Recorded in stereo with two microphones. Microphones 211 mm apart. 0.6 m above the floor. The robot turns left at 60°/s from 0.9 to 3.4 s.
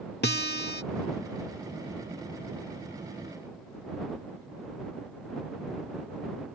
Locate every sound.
0.2 s a guitar: 50° left (ahead or behind)